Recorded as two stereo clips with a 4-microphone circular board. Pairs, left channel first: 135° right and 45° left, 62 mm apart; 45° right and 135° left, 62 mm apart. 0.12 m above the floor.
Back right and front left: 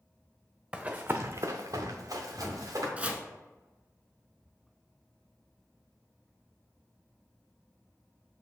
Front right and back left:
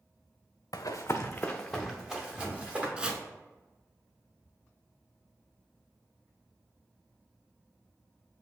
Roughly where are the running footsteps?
Ahead right.